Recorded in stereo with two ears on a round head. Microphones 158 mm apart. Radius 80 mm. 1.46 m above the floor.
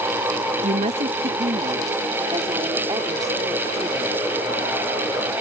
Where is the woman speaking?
45° right (ahead or behind); by 4.2 s 15° right (ahead or behind).